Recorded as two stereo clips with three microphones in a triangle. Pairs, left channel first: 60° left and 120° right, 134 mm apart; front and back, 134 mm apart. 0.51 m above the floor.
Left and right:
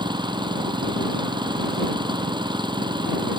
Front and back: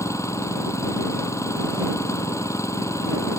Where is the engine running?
65° right.